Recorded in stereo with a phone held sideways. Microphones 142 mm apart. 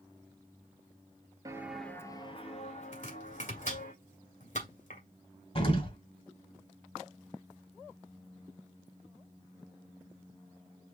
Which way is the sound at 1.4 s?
25° right (ahead or behind).